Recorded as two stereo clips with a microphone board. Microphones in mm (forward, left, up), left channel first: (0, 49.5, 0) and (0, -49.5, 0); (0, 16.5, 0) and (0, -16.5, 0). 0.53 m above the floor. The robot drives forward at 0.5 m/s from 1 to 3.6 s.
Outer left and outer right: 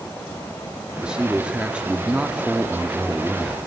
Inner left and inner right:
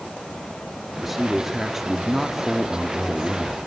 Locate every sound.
1.0 s a man speaking: 10° right (ahead or behind), 1.0 m; by 3.6 s 5° right (ahead or behind), 1.1 m